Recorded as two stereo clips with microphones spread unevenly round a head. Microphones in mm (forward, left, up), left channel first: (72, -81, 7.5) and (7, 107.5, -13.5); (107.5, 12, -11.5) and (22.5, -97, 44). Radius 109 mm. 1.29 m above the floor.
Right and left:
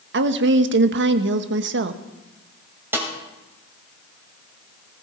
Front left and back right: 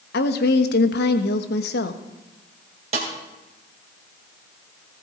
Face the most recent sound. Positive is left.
turn(degrees=-170)